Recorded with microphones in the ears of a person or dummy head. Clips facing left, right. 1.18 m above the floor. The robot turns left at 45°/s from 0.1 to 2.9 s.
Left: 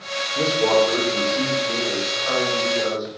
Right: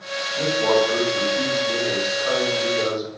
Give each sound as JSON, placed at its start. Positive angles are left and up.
{"t": 0.3, "sound": "a man speaking", "azimuth_deg": 70, "distance_m": 4.5}